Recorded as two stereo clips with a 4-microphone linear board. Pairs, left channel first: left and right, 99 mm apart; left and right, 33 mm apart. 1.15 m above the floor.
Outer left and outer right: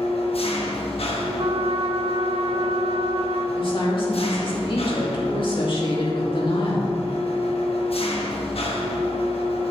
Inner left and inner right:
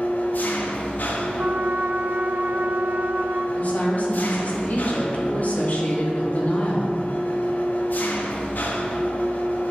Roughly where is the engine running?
Left.